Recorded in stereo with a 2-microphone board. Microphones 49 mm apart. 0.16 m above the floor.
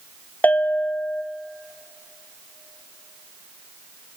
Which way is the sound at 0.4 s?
35° left (ahead or behind).